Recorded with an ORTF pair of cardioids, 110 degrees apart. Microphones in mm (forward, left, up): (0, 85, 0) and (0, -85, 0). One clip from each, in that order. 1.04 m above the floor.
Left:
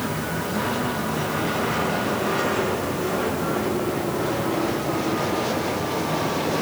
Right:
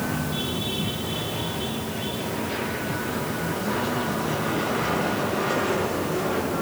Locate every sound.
Only background noise.